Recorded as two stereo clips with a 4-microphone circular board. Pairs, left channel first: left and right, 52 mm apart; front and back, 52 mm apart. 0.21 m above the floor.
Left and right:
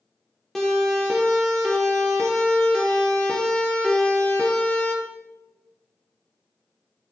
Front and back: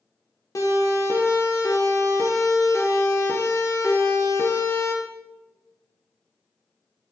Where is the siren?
5° left, 5.5 m; by 5.0 s 30° left, 4 m.